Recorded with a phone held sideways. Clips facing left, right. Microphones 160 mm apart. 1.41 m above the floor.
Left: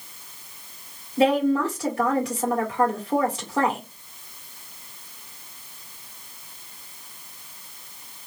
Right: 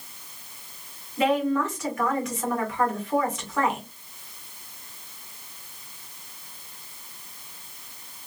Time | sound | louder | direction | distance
1.2 | a woman speaking | left 3 dB | 30° left (ahead or behind) | 1.7 m